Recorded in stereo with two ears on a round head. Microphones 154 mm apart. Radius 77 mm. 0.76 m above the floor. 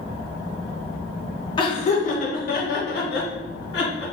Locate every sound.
1.6 s laughter: 30° left (ahead or behind), 0.7 m; by 4.0 s 70° left (ahead or behind), 1.6 m